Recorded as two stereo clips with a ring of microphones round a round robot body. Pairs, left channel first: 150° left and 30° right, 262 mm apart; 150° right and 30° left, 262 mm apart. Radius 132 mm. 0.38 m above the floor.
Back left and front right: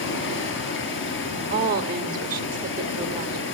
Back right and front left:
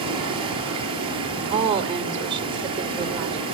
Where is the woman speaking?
25° right, 1.0 m.